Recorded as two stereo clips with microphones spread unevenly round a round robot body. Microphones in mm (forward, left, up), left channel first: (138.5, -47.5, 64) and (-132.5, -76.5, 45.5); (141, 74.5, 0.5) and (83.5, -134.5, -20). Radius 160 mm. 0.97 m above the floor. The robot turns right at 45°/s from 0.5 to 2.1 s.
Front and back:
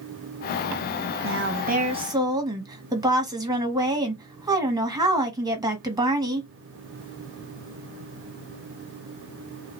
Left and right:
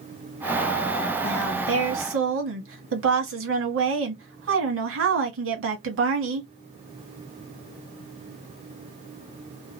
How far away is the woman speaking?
About 1.3 m.